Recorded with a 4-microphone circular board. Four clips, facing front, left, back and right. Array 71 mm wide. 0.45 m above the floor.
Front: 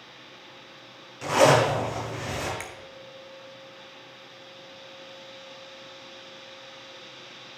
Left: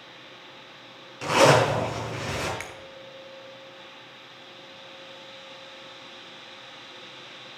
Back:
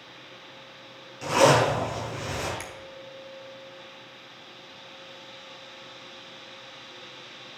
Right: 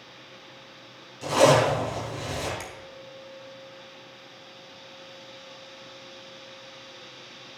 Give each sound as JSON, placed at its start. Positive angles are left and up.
{"t": 1.2, "sound": "a zipper", "azimuth_deg": 80, "distance_m": 5.5}
{"t": 2.6, "sound": "a finger snap", "azimuth_deg": 65, "distance_m": 1.2}